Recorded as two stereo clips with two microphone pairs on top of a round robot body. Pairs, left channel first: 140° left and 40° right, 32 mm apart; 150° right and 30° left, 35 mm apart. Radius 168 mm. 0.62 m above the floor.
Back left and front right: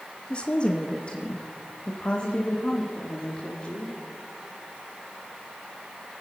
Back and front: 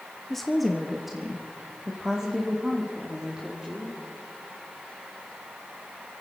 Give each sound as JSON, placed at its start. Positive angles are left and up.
{"t": 0.3, "sound": "a woman speaking", "azimuth_deg": 90, "distance_m": 1.1}